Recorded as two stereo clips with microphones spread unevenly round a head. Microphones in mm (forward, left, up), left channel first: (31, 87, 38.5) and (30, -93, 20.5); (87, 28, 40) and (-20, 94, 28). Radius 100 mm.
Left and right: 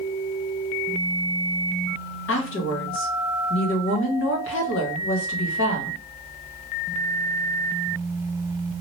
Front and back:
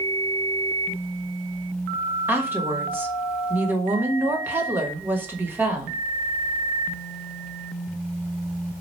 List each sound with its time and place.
2.3 s a woman speaking: 75° left, 1.2 m